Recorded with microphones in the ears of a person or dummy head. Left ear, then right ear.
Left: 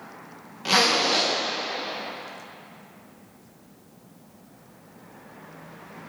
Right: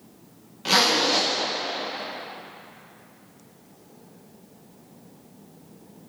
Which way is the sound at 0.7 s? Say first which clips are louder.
Even; centre (ahead or behind).